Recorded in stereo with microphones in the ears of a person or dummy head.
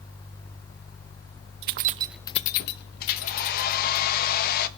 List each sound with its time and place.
1.6 s keys jangling: 65° right (ahead or behind), 0.8 m; by 4.0 s 75° left (ahead or behind), 2.5 m
3.0 s a hair dryer: 50° left (ahead or behind), 1.2 m